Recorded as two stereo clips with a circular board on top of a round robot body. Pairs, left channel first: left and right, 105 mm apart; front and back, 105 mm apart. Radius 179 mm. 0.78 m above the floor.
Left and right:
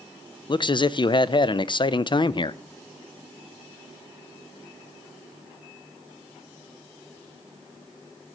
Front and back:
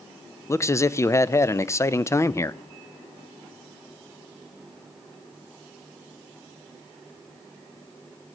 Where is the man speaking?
55° left, 0.5 m.